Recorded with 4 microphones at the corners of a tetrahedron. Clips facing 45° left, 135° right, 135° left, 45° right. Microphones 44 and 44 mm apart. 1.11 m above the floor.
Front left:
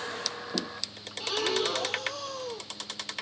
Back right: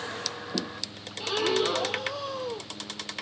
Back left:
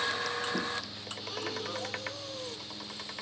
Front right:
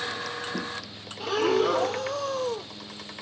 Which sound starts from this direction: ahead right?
Breathing, at 1.2 s.